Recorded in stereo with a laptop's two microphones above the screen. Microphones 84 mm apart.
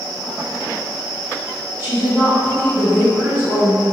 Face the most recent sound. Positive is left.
turn(degrees=-25)  # may be behind; listen again after turning